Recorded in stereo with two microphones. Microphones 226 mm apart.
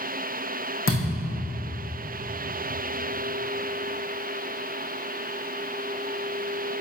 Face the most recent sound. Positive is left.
turn(degrees=65)  # may be behind; listen again after turning